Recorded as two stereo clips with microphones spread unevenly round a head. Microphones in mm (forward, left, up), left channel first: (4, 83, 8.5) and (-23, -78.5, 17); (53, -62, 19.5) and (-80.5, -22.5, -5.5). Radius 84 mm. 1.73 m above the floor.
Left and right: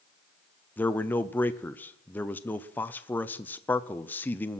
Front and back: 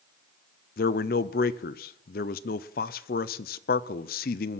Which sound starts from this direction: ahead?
A man speaking, at 0.8 s.